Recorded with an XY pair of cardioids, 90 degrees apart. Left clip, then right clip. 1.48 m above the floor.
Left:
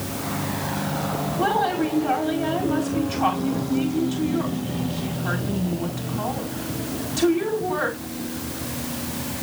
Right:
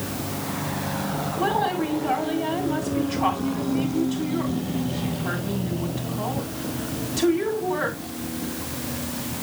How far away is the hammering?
No hammering in this recording.